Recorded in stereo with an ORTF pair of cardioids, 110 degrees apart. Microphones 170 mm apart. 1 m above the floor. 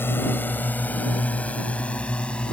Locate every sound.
0.0 s a drone: 15° left; by 2.5 s 5° left